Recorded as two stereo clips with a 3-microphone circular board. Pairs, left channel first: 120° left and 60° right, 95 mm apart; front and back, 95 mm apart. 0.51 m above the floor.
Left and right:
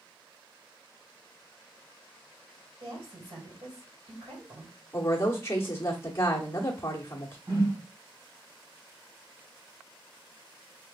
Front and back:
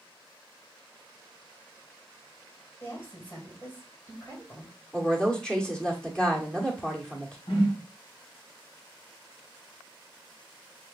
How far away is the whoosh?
About 2.5 m.